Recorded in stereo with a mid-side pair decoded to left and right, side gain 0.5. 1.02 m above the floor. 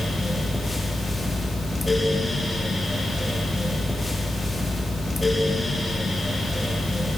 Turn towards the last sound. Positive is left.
turn(degrees=15)